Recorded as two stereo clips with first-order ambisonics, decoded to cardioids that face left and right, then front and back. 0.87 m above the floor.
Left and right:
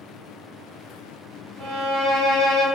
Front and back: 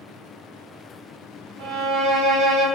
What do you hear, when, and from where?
1.6 s a violin: 170° right, 1.2 m